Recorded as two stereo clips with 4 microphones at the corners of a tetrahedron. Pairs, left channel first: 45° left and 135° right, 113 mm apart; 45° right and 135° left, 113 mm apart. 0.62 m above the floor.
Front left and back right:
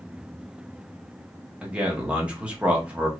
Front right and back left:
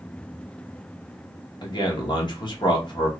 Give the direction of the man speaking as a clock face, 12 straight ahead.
2 o'clock.